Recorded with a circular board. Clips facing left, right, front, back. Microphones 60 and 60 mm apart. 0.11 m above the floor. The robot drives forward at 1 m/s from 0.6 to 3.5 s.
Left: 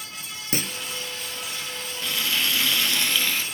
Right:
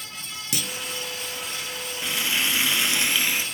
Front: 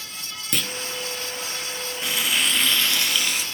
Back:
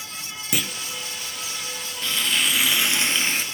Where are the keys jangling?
I don't hear keys jangling.